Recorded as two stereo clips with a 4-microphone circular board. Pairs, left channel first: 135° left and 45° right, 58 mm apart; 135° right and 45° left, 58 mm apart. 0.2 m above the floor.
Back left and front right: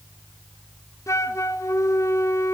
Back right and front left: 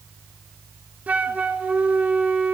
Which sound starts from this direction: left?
A flute, at 1.1 s.